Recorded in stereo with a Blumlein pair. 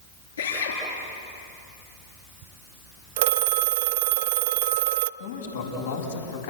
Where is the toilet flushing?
No toilet flushing in this recording.